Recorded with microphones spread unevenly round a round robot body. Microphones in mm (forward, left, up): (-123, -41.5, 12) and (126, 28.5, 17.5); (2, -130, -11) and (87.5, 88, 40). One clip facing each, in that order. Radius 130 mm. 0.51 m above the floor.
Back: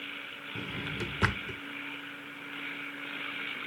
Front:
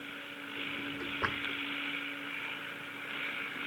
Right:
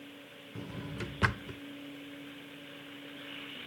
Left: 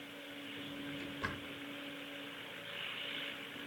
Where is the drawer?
130° right, 0.6 m.